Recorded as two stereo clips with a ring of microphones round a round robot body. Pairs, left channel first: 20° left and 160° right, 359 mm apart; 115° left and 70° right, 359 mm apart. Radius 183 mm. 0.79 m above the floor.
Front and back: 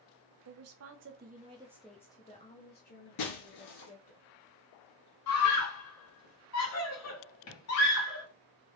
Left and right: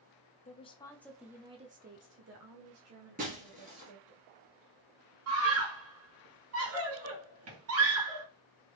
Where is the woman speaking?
Straight behind, 0.8 m; by 4.2 s 25° right, 1.4 m.